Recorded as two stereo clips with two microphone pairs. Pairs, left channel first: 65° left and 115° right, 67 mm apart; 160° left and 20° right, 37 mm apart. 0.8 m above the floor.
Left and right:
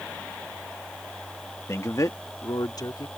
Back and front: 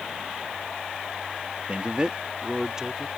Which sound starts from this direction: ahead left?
A man speaking, at 1.7 s.